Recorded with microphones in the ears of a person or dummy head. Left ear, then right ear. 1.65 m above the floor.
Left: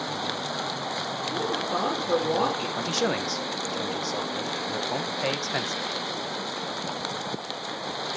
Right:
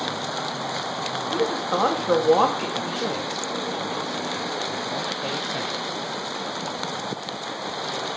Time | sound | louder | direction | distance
1.3 | a woman speaking | right 5 dB | 55° right (ahead or behind) | 3 m
2.8 | a man speaking | even | 55° left (ahead or behind) | 1.2 m